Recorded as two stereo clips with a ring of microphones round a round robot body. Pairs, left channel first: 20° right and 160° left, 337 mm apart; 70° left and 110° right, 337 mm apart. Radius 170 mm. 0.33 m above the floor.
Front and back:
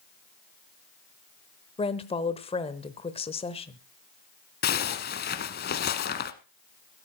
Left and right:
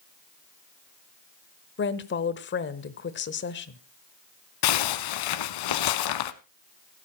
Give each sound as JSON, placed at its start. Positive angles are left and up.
{"t": 1.8, "sound": "a woman speaking", "azimuth_deg": 40, "distance_m": 1.0}
{"t": 4.6, "sound": "a zipper", "azimuth_deg": 40, "distance_m": 0.8}